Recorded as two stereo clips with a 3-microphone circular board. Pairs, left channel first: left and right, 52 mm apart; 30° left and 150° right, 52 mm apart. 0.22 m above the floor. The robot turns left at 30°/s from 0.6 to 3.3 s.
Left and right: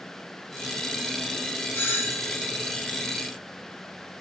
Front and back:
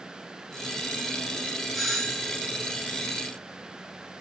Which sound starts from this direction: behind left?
A doorbell, at 1.7 s.